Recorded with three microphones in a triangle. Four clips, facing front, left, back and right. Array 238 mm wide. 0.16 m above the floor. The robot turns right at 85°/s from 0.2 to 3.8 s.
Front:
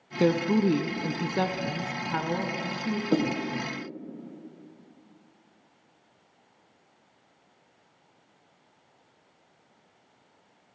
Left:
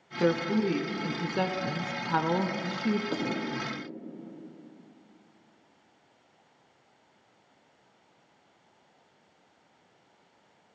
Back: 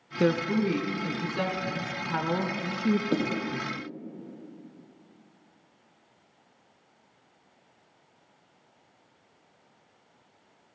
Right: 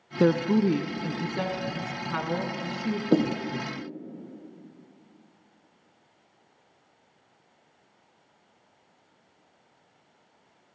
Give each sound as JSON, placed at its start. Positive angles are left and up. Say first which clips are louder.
{"t": 0.2, "sound": "a woman speaking", "louder": "right 4 dB, front 2 dB", "azimuth_deg": -80, "distance_m": 1.9}
{"t": 3.1, "sound": "a snare drum", "louder": "right 9 dB, front 2 dB", "azimuth_deg": -80, "distance_m": 4.0}